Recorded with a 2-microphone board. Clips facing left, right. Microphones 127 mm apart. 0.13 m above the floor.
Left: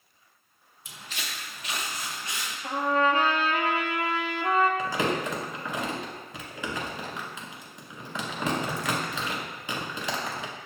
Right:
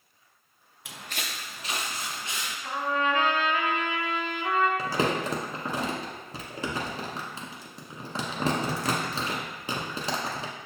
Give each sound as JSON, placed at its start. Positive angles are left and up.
{"t": 0.8, "sound": "footsteps", "side_deg": -70, "distance_m": 0.5}
{"t": 2.6, "sound": "a trumpet", "side_deg": 40, "distance_m": 0.7}
{"t": 4.8, "sound": "crumpling", "side_deg": -35, "distance_m": 0.8}